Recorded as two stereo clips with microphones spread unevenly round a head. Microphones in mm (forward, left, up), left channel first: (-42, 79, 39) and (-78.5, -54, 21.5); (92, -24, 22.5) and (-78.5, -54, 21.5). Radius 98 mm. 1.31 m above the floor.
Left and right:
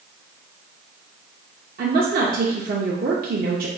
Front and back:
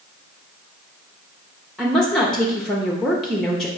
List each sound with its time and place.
1.8 s a woman speaking: 75° right, 0.6 m